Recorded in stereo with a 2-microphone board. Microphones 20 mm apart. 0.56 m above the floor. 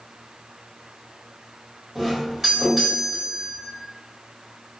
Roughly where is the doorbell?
Centre.